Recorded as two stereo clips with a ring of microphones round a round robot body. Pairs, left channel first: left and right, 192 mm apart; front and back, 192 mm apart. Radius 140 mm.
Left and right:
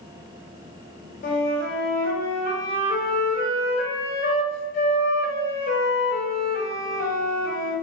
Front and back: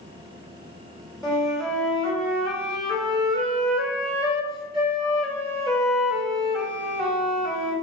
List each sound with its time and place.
1.2 s a flute: 95° left, 1.2 m